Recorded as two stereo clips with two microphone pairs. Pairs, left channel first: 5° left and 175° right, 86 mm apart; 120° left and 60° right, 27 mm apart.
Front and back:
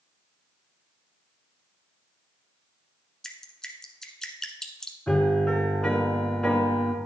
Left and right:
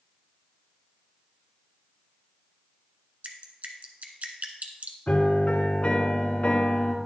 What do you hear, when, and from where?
3.2 s dripping: 75° right, 1.1 m
5.1 s a piano: 85° left, 1.8 m